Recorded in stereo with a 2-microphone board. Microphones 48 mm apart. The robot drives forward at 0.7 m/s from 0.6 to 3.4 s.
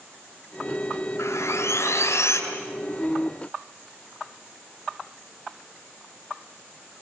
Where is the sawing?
80° left, 6.5 m.